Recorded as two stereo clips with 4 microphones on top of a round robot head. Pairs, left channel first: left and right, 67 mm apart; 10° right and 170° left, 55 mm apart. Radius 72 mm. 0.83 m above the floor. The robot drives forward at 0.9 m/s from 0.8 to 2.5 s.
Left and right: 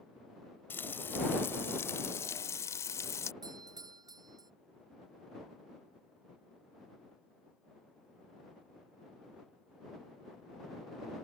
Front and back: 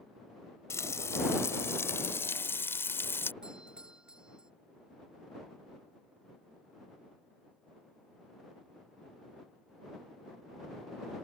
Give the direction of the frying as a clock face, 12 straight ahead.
11 o'clock.